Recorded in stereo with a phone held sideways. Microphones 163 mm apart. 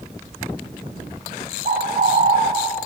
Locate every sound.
1.6 s a bird: 55° right (ahead or behind), 0.6 m